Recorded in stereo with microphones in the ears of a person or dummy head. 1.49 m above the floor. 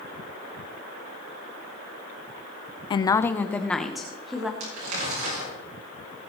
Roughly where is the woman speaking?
Left.